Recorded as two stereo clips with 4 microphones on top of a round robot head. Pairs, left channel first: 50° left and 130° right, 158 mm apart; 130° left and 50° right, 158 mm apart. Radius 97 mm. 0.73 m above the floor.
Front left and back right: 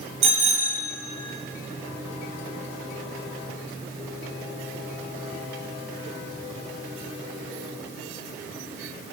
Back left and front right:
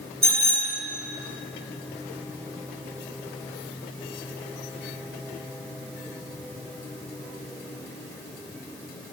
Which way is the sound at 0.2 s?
80° right.